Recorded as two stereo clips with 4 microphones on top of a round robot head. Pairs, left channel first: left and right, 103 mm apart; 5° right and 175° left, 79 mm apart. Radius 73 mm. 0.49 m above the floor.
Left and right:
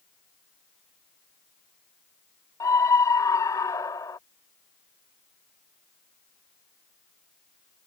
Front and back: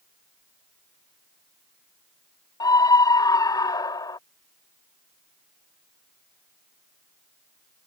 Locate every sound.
2.6 s a scream: 25° left